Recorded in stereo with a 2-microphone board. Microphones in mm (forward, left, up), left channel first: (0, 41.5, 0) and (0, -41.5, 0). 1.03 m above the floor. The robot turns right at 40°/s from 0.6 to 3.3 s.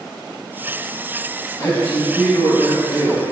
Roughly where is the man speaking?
Left.